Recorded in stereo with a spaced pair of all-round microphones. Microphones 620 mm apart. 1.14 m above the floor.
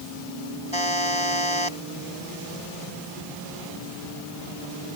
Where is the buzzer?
50° left (ahead or behind).